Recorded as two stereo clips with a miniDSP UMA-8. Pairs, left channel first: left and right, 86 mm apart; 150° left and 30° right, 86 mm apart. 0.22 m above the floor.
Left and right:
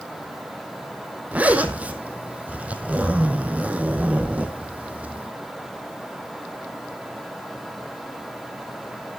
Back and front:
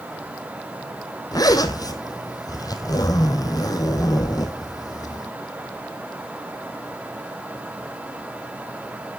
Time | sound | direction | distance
1.3 | a zipper | 165° right | 1.3 m